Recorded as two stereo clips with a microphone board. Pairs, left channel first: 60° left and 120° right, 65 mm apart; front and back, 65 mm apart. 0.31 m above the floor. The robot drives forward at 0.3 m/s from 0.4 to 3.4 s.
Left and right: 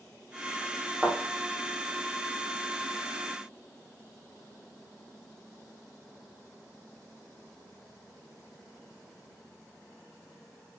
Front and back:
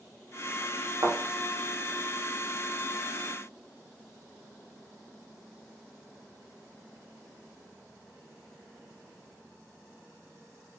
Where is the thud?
155° left, 5 m.